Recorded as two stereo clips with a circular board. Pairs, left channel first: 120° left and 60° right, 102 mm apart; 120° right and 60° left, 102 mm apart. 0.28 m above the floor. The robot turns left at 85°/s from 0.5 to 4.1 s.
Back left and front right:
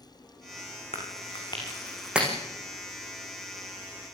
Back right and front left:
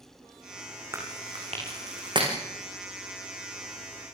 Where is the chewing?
125° left, 8 m; by 2.3 s 10° left, 8 m.